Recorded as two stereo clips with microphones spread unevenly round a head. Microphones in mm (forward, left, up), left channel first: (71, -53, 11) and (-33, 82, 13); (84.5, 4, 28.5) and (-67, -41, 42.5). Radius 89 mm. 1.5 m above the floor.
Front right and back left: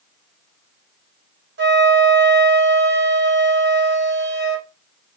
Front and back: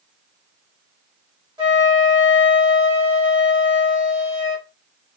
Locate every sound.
1.6 s a flute: 135° left, 1.0 m